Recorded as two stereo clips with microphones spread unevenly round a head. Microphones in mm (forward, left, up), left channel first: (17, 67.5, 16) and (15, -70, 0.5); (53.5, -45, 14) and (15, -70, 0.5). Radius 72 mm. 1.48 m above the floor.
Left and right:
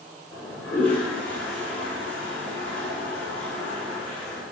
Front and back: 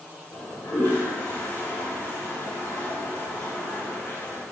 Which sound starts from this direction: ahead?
A toilet flushing, at 0.3 s.